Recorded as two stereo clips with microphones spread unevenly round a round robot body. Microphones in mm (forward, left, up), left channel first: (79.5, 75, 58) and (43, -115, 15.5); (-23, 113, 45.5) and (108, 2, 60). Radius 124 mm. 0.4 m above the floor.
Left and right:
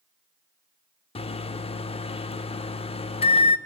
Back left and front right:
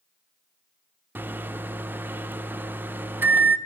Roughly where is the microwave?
Ahead left.